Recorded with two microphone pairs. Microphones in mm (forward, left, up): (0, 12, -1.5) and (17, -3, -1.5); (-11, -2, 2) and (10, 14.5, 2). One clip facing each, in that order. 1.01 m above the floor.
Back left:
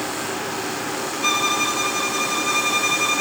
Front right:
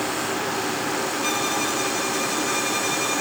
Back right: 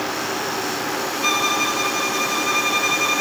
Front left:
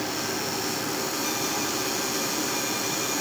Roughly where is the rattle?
I don't hear a rattle.